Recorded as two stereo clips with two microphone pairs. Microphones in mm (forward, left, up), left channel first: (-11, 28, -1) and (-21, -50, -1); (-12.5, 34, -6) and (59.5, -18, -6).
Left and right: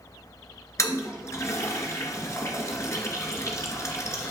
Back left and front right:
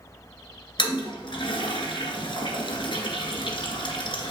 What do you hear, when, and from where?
0.8 s a toilet flushing: 130° left, 1.9 m